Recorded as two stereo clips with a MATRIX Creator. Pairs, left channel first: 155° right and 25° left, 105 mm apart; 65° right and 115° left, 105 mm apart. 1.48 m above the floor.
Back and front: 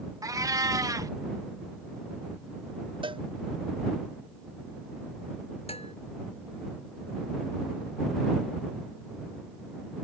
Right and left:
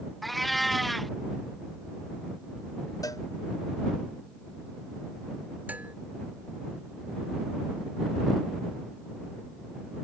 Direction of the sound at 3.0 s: 10° right.